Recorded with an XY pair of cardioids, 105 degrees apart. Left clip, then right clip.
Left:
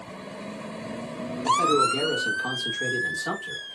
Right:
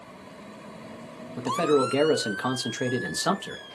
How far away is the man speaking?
About 0.7 m.